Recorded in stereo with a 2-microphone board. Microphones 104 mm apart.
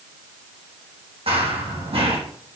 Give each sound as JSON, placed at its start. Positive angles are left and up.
{"t": 1.3, "sound": "running footsteps", "side_deg": -65, "distance_m": 3.5}